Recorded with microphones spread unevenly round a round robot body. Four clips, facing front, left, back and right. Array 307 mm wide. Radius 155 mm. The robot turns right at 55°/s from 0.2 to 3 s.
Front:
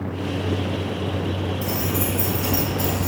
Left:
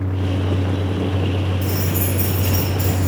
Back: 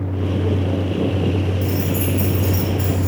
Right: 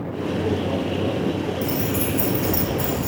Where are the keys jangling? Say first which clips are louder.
Even, back 3 dB; 135° right, 0.6 m; by 3.1 s 55° right, 0.6 m.